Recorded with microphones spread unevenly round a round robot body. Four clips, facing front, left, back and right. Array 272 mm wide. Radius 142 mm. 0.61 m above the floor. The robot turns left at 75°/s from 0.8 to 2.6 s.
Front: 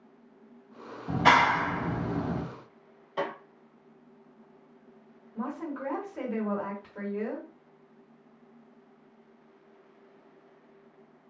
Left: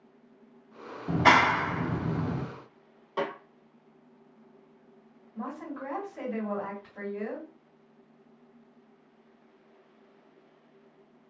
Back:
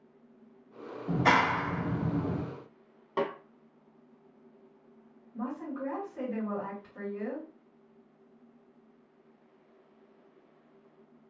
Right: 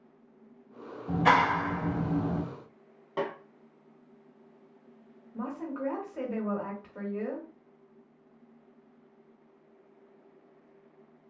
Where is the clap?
70° left, 1.1 m; by 2.4 s 30° right, 1.1 m.